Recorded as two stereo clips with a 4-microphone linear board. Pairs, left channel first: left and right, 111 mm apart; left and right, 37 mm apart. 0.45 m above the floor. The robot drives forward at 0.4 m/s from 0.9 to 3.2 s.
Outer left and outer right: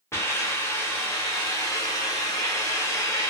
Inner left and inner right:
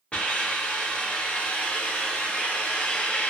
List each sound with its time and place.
0.1 s a hiss: 25° left (ahead or behind), 0.9 m; by 3.3 s 30° left (ahead or behind), 0.8 m